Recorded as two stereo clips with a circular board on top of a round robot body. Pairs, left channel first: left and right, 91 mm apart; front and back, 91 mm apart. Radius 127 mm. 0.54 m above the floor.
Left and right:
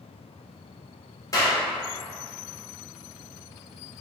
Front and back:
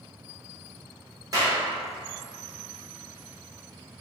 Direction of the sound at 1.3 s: 135° left.